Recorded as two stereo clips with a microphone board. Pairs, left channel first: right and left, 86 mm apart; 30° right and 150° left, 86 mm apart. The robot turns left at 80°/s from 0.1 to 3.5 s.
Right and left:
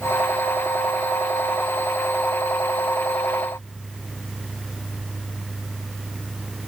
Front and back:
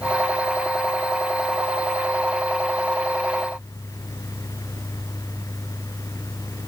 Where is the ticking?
No ticking in this recording.